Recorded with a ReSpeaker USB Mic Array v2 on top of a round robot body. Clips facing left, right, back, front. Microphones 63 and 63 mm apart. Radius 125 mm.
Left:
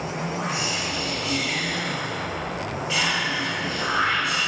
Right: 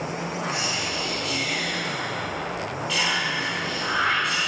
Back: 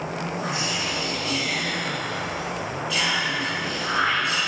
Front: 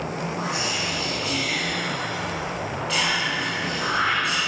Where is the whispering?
15° left, 3.5 m.